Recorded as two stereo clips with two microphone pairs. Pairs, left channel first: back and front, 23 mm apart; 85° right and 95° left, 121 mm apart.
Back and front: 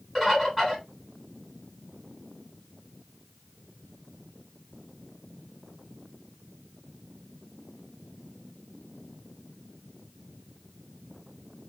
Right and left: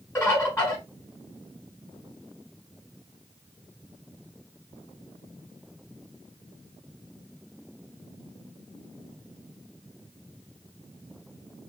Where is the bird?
100° right, 1.4 m.